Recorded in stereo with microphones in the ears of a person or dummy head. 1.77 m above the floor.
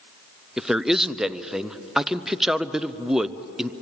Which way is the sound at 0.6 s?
5° right (ahead or behind).